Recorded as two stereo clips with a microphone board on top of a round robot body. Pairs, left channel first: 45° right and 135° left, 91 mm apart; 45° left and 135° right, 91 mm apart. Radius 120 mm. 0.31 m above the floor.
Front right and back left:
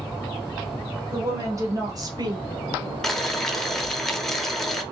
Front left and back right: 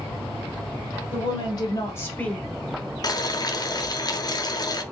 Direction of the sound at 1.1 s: 75° left.